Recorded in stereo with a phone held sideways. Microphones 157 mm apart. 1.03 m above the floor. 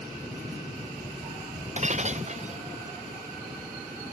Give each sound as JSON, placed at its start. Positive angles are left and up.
{"t": 1.8, "sound": "breaking glass", "side_deg": -45}